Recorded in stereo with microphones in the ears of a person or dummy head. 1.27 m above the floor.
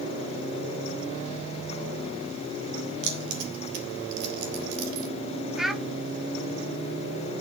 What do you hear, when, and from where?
3.0 s keys jangling: 70° right (ahead or behind), 3 m; by 5.1 s 50° right (ahead or behind), 2.5 m
5.6 s a child speaking: centre (ahead or behind), 1.0 m